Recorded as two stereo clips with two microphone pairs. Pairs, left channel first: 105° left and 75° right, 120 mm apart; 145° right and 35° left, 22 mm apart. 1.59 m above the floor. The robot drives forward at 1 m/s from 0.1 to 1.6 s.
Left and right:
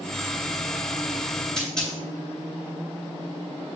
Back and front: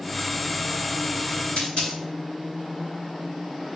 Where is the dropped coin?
170° right, 3.5 m.